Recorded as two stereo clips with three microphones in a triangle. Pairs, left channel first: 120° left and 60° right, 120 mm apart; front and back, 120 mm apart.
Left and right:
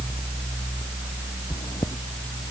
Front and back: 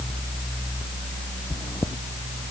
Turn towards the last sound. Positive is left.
turn(degrees=65)